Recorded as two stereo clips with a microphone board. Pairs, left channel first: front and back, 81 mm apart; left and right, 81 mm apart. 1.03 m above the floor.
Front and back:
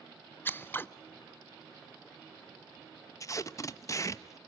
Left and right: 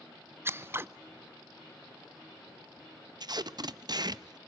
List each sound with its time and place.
0.5 s scissors: 50° right, 0.5 m
3.2 s tape being pulled: 55° right, 0.6 m